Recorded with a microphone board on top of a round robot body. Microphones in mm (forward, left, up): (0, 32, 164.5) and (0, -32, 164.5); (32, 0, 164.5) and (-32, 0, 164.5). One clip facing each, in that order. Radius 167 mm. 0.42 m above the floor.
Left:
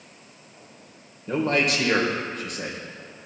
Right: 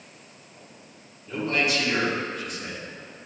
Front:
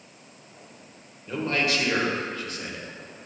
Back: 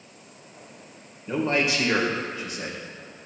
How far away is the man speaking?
About 2.5 m.